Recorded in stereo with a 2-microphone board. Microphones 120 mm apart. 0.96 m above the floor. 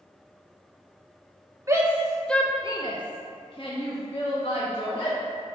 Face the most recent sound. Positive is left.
turn(degrees=50)  # may be behind; listen again after turning